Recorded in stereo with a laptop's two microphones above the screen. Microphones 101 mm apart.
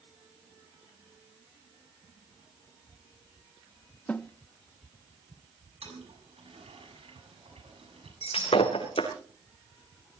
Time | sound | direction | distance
4.1 | a snare drum | 15° left (ahead or behind) | 0.6 m
5.8 | a toilet flushing | 85° right | 7.5 m
8.2 | breaking glass | 70° left (ahead or behind) | 3.5 m